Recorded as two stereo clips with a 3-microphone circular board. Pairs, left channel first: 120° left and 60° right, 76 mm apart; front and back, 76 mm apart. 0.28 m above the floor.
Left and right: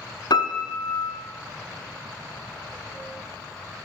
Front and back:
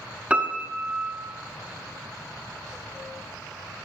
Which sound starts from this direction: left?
A piano, at 0.3 s.